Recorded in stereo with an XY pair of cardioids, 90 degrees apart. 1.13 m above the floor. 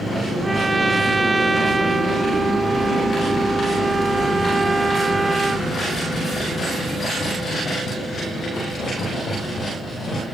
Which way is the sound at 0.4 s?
20° right.